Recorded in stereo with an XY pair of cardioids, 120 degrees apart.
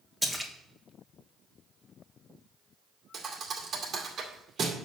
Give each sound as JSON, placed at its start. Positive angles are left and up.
{"t": 0.2, "sound": "a splash", "azimuth_deg": 0, "distance_m": 1.7}
{"t": 3.1, "sound": "a thud", "azimuth_deg": -45, "distance_m": 2.0}